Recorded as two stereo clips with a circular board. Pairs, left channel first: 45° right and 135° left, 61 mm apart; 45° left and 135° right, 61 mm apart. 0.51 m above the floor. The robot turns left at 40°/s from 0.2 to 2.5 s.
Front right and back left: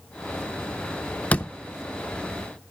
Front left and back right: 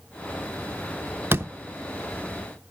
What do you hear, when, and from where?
1.3 s a door slam: 100° right, 0.6 m; by 1.5 s 110° right, 0.6 m